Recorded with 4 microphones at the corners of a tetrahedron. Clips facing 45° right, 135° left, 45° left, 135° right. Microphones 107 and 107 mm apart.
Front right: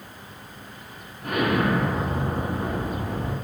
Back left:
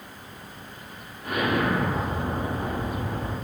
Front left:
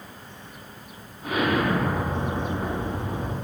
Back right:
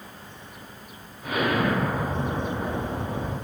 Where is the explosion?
15° right, 1.1 m.